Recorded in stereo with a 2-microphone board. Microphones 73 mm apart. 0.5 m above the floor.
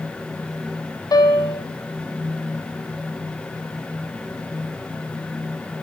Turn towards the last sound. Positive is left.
turn(degrees=65)  # may be behind; listen again after turning